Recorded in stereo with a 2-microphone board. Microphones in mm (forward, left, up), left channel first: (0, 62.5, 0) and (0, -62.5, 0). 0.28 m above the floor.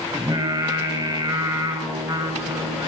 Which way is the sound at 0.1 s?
30° right (ahead or behind).